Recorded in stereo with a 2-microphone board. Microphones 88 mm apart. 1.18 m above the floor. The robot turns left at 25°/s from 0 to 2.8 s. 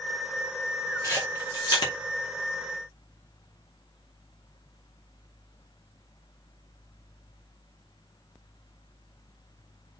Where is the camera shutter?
35° left (ahead or behind), 2.5 m; by 1.9 s 60° left (ahead or behind), 2.5 m.